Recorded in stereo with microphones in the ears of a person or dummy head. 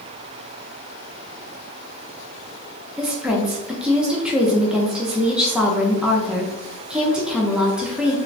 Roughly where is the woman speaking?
Centre.